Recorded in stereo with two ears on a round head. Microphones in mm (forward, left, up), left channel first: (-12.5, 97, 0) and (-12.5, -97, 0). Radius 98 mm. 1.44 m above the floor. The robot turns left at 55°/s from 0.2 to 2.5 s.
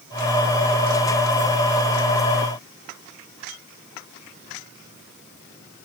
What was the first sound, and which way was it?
Only background noise.